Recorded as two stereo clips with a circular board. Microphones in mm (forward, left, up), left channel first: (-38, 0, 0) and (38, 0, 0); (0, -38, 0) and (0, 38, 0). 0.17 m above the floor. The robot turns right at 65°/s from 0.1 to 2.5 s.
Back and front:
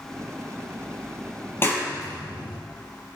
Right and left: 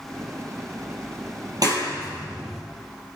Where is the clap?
120° left, 3.5 m; by 2.6 s straight behind, 3.5 m.